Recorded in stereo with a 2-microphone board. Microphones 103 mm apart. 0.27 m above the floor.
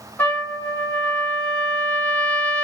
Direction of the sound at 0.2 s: 15° left (ahead or behind).